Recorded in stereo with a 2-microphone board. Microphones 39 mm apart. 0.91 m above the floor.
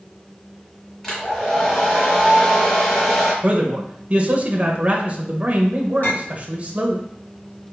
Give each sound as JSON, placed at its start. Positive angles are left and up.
{"t": 1.0, "sound": "a hair dryer", "side_deg": 15, "distance_m": 2.5}
{"t": 3.4, "sound": "a man speaking", "side_deg": -30, "distance_m": 0.9}
{"t": 6.0, "sound": "a clink", "side_deg": 50, "distance_m": 2.0}